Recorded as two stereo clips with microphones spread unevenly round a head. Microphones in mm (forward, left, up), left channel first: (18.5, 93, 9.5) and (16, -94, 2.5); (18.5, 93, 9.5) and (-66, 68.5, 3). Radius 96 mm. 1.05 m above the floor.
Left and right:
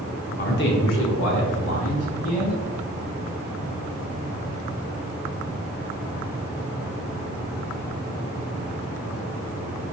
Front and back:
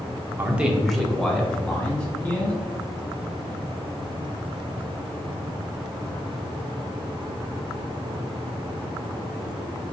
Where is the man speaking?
135° left, 0.8 m; by 2.6 s 80° left, 2.5 m.